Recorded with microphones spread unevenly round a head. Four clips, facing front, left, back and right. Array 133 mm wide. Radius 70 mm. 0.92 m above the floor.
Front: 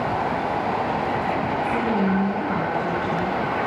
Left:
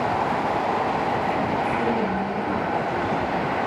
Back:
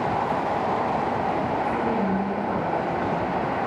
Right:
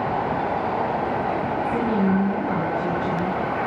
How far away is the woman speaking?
About 8 m.